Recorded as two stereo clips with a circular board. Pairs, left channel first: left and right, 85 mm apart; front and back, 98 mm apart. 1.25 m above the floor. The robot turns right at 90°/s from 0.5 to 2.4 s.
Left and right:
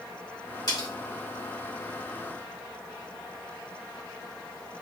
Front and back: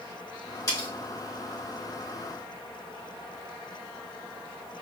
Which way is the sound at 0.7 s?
50° left.